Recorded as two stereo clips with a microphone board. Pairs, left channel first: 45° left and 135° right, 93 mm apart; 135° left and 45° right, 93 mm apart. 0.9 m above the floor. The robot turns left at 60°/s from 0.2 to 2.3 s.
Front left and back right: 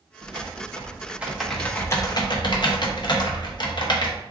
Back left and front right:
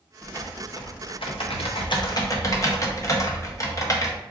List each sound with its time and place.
0.2 s typing on a keyboard: 150° right, 0.7 m; by 4.2 s 80° left, 0.7 m